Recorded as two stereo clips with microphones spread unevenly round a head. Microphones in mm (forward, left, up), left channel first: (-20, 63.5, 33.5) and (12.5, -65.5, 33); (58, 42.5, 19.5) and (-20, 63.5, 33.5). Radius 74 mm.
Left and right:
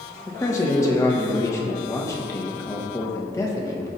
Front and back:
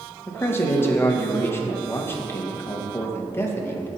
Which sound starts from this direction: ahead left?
A man speaking, at 0.3 s.